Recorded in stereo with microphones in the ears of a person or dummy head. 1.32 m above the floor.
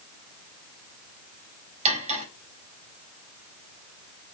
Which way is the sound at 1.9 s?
30° right (ahead or behind).